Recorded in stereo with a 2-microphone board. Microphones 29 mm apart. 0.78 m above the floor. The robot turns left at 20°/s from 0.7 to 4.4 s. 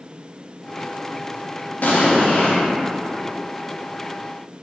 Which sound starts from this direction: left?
An explosion, at 1.8 s.